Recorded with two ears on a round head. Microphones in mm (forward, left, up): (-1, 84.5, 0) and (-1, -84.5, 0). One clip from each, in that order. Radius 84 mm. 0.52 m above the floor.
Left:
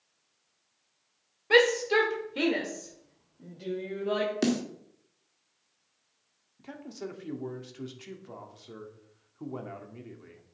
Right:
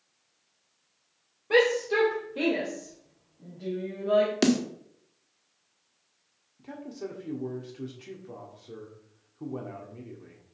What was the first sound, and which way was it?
A shout, 50° left (ahead or behind).